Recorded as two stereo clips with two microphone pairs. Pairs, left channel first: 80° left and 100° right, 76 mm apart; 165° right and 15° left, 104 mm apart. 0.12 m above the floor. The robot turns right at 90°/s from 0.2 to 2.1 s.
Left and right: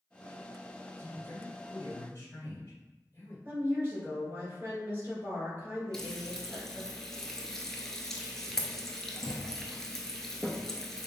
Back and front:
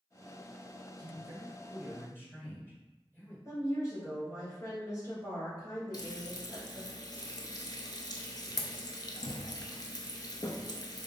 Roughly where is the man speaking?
Ahead left.